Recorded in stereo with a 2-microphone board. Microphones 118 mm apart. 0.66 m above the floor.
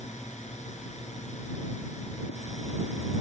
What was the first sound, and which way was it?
A drone, 75° left (ahead or behind).